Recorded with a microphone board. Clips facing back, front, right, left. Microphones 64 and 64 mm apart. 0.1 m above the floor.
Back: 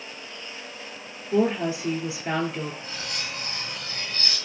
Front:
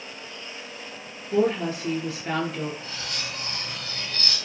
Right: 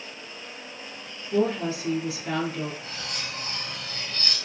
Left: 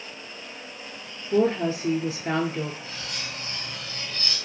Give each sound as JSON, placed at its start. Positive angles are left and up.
{"t": 1.3, "sound": "a woman speaking", "azimuth_deg": 105, "distance_m": 1.4}
{"t": 2.8, "sound": "cutlery clinking", "azimuth_deg": -115, "distance_m": 2.5}